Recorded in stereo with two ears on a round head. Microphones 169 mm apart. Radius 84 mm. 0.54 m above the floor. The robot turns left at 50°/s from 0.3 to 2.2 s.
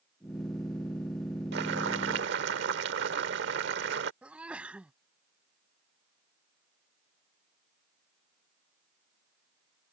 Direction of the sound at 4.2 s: 5° right (ahead or behind).